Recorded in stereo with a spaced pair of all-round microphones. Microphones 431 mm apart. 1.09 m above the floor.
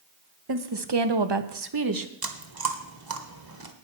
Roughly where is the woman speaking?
Right.